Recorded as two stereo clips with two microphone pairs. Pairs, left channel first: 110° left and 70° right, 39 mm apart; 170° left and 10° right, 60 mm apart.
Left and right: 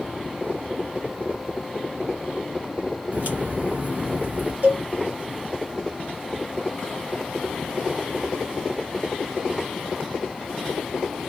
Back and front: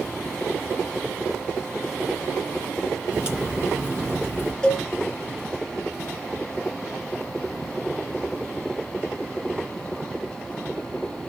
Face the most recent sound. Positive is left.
turn(degrees=-110)